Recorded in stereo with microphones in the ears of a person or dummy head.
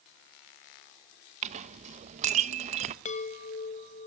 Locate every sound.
1.4 s a clink: 35° right (ahead or behind), 0.9 m
3.0 s a chime: 40° left (ahead or behind), 1.3 m